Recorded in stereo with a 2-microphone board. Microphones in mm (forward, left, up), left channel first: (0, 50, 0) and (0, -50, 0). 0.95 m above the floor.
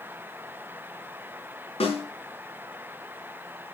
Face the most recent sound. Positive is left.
turn(degrees=75)  # may be behind; listen again after turning